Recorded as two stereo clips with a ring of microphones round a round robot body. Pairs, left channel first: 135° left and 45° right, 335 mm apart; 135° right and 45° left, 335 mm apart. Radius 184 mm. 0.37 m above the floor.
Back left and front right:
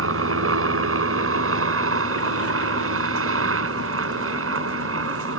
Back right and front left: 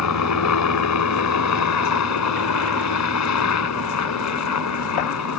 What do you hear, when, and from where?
0.0 s a helicopter: 95° right